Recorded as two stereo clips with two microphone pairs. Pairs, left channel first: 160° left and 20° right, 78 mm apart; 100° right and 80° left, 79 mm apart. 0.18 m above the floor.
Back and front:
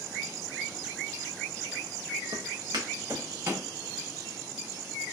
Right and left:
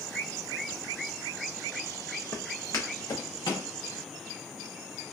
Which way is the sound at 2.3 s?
35° right.